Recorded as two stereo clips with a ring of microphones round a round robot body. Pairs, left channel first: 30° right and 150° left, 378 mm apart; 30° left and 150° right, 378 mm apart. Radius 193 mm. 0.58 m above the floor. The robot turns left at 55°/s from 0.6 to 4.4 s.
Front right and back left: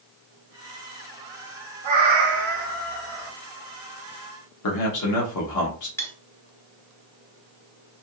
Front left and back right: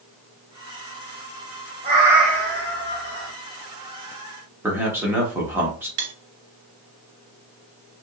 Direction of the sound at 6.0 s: 115° right.